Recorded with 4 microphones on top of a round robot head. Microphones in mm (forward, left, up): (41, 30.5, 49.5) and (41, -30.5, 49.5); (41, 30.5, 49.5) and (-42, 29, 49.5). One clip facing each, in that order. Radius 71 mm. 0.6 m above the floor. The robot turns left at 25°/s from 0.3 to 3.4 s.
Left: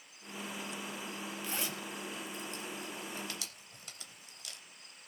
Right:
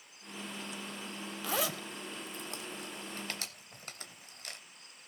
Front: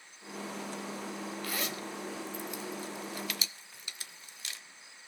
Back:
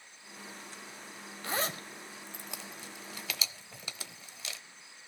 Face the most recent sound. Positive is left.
turn(degrees=-155)